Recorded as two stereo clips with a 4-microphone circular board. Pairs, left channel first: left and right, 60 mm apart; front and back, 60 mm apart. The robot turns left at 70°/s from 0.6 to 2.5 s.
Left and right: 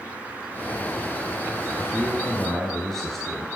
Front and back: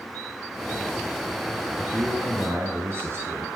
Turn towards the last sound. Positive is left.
turn(degrees=170)